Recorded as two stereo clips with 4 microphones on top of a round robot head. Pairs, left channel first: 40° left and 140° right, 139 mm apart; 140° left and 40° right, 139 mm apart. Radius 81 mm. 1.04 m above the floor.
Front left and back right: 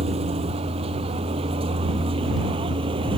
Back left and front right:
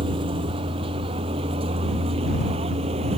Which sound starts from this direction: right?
A vehicle, at 0.0 s.